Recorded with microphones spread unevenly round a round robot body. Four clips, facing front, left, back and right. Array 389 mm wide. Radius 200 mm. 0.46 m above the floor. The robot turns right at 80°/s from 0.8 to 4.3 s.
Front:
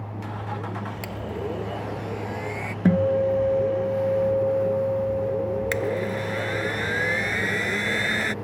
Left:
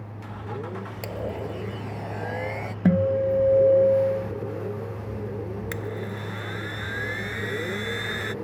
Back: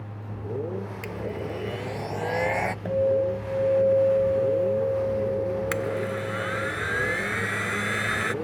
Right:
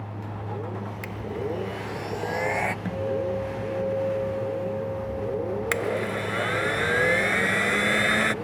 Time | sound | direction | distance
1.0 | a blender | 90° left | ?
2.9 | a guitar | 40° left | ?
5.7 | a blender | 80° right | ?